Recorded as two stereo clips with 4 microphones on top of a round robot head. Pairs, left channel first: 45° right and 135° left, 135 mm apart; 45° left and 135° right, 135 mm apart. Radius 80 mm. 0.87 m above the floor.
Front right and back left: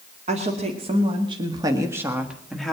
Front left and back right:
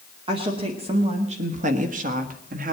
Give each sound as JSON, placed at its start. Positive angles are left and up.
{"t": 0.3, "sound": "a woman speaking", "azimuth_deg": 175, "distance_m": 2.0}